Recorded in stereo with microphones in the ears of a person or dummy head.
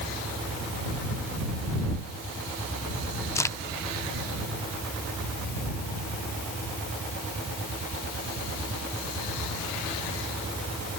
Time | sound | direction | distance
3.4 | a crack | 15° left (ahead or behind) | ?